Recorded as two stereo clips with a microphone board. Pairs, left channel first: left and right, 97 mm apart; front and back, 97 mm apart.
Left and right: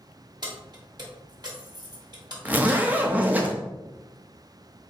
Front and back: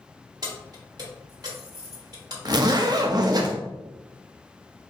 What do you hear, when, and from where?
0.4 s keys jangling: 135° right, 1.4 m
2.5 s a zipper: 155° right, 0.6 m